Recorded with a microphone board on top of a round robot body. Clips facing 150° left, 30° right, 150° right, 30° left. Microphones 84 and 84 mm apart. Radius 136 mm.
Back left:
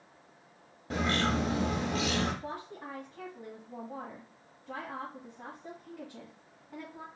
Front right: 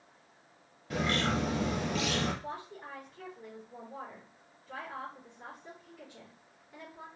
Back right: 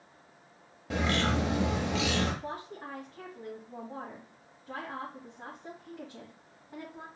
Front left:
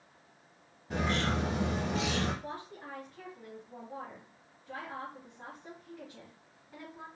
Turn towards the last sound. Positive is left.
turn(degrees=150)